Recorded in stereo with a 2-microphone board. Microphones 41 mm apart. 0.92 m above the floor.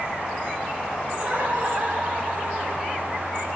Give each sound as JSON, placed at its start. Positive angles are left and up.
{"t": 1.1, "sound": "laughter", "side_deg": -40, "distance_m": 6.0}